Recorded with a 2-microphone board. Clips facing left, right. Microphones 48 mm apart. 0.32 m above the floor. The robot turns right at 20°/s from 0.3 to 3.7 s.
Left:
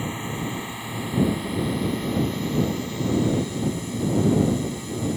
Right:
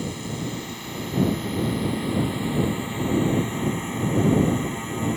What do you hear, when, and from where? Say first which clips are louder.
0.0 s a drone: left 1 dB; 150° left; by 5.2 s 140° right